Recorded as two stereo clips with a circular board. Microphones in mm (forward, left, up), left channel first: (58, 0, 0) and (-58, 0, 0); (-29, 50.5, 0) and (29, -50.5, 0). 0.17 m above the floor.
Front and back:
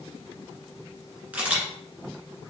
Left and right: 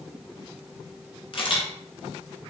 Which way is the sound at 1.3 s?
105° left.